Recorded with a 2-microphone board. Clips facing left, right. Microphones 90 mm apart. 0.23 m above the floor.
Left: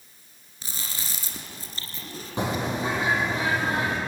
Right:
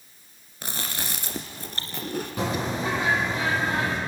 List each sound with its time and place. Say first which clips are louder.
0.6 s chewing: right 6 dB; 65° right (ahead or behind), 1.9 m
2.4 s a bird: left 2 dB; 30° left (ahead or behind), 7.5 m